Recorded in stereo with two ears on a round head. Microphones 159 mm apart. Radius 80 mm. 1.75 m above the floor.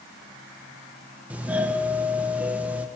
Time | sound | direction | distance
1.3 | a doorbell | 10° right (ahead or behind) | 2.5 m